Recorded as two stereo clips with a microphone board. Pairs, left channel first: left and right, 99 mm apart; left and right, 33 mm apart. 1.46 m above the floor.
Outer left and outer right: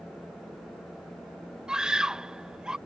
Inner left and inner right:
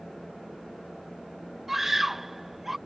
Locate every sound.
1.7 s a scream: 10° right (ahead or behind)